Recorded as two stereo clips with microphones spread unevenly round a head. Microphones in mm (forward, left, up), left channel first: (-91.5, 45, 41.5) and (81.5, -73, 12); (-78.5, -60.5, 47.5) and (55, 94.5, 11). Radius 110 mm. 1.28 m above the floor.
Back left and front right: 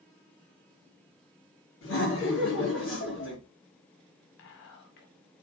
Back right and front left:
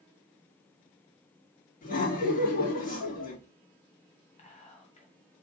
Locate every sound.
1.8 s laughter: straight behind, 3 m
4.4 s whispering: 170° left, 0.8 m